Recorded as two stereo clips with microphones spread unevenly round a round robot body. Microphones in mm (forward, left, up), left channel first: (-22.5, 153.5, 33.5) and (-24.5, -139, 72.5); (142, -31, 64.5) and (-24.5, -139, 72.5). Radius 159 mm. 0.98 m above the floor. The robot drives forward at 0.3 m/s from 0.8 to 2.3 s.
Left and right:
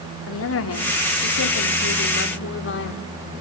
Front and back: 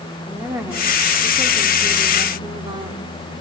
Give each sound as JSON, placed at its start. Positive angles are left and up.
{"t": 0.3, "sound": "a woman speaking", "azimuth_deg": 130, "distance_m": 2.5}